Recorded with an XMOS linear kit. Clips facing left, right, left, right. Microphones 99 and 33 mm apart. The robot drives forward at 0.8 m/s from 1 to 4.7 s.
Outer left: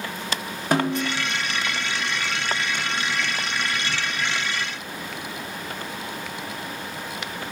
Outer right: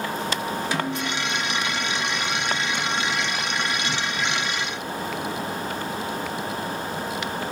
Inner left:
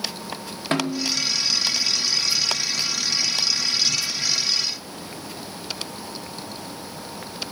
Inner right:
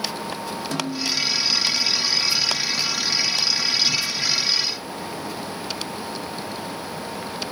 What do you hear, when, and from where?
0.7 s a snare drum: 50° left (ahead or behind), 1.5 m